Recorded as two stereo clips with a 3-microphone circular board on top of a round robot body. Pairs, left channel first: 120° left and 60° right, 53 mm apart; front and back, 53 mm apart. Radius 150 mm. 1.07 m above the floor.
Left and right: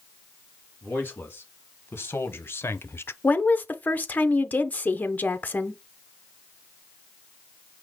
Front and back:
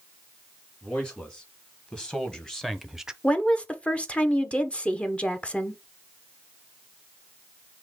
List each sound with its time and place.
0.8 s a man speaking: 65° left, 2.5 m; by 3.1 s 110° left, 0.6 m
3.2 s a woman speaking: 65° left, 0.9 m